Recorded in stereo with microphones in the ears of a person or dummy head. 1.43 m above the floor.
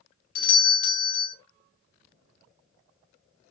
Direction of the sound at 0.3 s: 50° left (ahead or behind).